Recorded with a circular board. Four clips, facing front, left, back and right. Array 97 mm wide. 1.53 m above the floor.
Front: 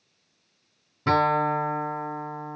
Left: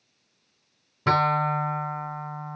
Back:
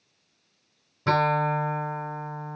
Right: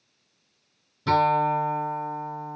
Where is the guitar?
85° left, 1.7 m.